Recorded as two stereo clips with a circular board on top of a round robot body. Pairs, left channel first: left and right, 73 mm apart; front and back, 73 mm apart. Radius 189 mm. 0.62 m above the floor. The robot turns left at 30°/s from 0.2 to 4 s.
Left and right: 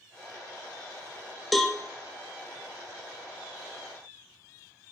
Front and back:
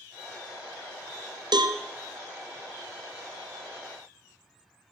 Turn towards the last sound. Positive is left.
turn(degrees=105)